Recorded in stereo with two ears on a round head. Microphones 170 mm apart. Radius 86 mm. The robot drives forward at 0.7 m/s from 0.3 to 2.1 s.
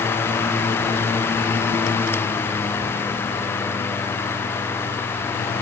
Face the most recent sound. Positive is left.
No sound to turn to.